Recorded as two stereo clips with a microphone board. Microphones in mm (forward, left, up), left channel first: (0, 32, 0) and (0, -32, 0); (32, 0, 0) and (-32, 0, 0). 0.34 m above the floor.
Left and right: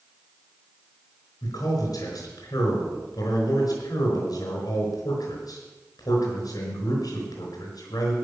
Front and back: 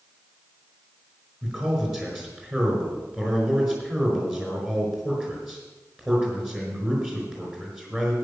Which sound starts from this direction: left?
A man speaking, at 1.4 s.